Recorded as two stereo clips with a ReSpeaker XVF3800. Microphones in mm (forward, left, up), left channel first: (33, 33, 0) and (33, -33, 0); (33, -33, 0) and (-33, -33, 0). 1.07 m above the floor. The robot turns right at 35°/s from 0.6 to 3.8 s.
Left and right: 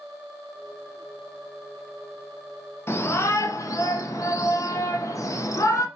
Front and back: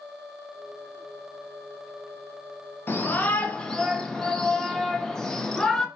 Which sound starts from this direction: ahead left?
A shout, at 2.9 s.